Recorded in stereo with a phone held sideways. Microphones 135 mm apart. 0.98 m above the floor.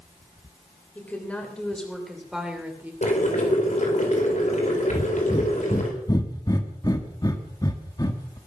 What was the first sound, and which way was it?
A woman speaking, 15° left (ahead or behind).